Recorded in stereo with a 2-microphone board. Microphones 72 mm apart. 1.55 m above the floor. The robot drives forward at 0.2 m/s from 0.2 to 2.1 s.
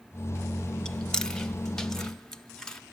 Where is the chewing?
10° left (ahead or behind), 0.5 m; by 2.8 s 5° left (ahead or behind), 0.8 m.